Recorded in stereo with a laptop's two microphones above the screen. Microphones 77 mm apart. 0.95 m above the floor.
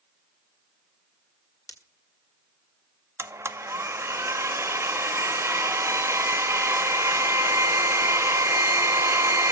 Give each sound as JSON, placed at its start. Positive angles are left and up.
{"t": 1.7, "sound": "breaking glass", "side_deg": 50, "distance_m": 1.9}
{"t": 3.2, "sound": "a blender", "side_deg": -35, "distance_m": 1.1}